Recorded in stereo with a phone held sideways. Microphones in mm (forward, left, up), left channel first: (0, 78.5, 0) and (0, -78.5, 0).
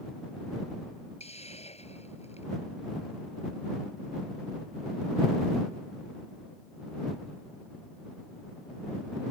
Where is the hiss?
40° left (ahead or behind).